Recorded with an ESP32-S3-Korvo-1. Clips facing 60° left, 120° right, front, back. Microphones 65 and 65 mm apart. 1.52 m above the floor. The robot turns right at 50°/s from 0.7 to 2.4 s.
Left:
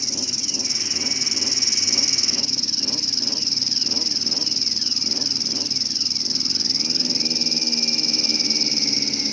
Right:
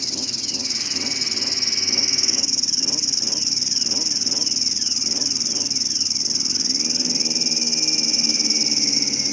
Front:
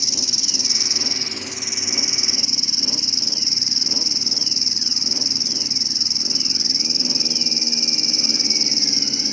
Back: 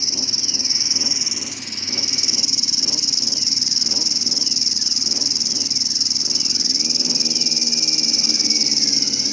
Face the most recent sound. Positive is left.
turn(degrees=-45)